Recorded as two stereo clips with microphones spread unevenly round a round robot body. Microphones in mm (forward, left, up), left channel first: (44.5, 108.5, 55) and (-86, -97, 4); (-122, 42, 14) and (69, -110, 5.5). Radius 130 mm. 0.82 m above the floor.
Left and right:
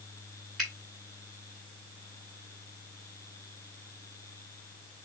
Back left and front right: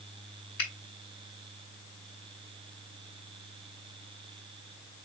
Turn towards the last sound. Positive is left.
turn(degrees=150)